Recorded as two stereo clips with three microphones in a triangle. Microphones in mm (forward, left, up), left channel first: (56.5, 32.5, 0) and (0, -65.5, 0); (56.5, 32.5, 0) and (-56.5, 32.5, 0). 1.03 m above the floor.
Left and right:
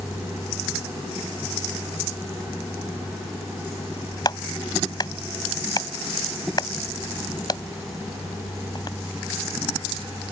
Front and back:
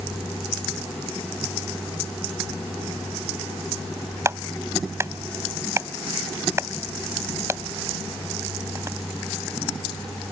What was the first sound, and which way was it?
A clap, 115° left.